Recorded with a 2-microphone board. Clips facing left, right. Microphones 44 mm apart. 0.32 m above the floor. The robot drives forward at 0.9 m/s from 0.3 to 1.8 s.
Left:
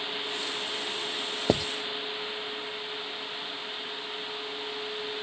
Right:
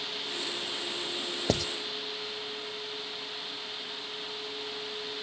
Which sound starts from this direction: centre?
Writing, at 1.5 s.